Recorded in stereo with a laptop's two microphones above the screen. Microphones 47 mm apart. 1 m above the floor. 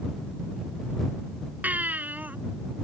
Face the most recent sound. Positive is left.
turn(degrees=-35)  # may be behind; listen again after turning